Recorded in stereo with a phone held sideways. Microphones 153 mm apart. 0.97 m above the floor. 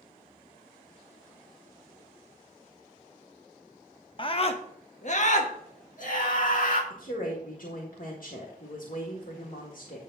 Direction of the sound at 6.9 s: 65° left (ahead or behind).